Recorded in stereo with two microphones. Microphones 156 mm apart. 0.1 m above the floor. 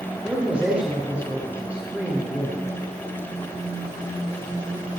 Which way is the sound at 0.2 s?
10° right (ahead or behind).